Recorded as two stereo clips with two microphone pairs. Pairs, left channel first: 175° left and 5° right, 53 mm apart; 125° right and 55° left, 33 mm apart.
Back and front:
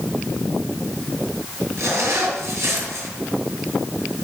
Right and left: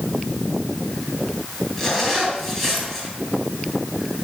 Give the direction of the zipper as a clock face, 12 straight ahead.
1 o'clock.